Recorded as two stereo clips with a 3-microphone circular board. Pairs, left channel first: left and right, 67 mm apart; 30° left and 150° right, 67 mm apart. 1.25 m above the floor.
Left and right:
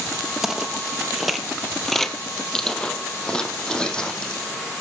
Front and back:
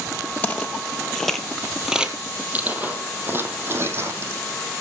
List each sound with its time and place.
0.4 s footsteps: 15° right, 1.4 m; by 4.4 s 165° left, 2.5 m